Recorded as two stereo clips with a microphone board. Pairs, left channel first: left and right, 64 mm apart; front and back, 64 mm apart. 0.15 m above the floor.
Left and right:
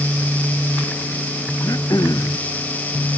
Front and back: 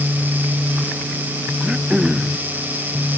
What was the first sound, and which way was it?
Throat clearing, 100° left.